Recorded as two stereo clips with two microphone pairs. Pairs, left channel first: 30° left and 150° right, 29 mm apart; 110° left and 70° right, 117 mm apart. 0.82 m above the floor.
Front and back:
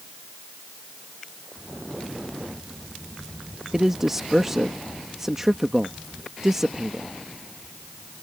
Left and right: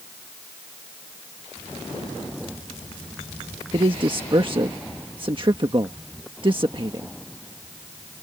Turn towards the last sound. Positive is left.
turn(degrees=-80)